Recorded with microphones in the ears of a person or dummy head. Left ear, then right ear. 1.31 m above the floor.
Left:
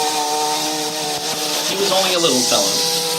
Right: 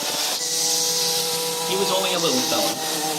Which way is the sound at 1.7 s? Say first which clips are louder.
Left 5 dB; 10° right (ahead or behind).